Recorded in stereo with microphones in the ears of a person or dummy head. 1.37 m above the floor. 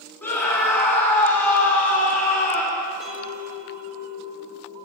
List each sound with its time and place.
0.2 s a scream: 10° left (ahead or behind), 3.5 m
3.0 s a clink: 5° right (ahead or behind), 3 m